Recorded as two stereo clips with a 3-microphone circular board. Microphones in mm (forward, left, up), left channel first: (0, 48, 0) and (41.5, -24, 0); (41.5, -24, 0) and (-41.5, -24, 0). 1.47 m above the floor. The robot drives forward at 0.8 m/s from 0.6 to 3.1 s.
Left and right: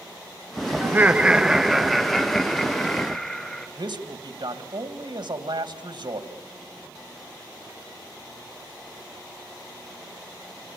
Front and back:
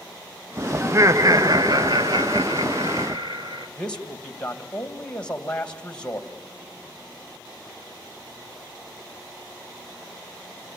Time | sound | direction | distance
0.8 | laughter | 120° right | 0.8 m
3.8 | a man speaking | 80° right | 2 m